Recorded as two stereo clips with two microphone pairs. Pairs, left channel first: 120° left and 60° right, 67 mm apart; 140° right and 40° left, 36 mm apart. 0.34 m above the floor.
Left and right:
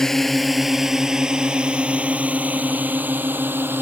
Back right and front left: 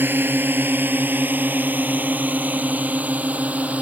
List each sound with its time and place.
0.0 s a drone: 35° left; by 3.8 s 5° right